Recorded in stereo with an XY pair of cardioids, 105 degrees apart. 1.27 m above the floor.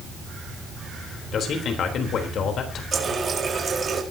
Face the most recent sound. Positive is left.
turn(degrees=-40)